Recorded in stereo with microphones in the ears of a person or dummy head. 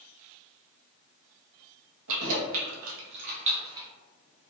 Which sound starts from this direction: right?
Keys jangling, at 2.1 s.